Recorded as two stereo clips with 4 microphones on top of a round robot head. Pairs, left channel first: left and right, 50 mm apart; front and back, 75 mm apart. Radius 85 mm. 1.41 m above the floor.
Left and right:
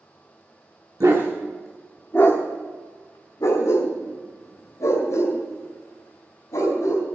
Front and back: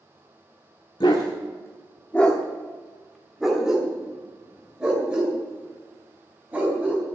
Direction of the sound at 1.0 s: 40° right.